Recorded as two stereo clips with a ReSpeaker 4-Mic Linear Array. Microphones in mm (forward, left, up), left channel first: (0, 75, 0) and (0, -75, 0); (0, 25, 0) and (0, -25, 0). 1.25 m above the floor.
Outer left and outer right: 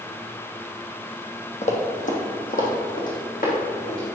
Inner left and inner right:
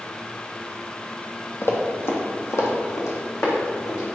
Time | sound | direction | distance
1.6 | running footsteps | 50° left (ahead or behind) | 2.0 m